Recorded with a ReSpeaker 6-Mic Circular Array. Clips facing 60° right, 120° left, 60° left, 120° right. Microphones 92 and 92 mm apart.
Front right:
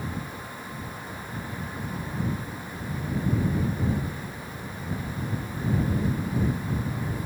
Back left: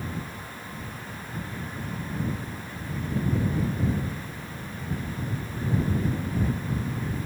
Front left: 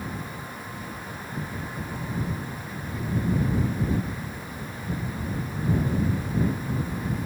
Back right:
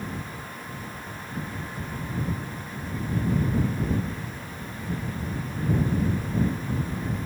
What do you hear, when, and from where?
Only background noise.